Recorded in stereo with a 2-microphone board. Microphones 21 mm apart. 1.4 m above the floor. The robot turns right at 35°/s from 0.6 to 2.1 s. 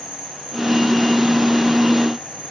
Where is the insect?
120° right, 6 m; by 2.5 s 65° right, 6 m.